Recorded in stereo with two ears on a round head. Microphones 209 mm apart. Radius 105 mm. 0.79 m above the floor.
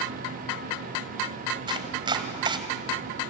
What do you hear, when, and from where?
1.7 s chopping: 20° right (ahead or behind), 1.8 m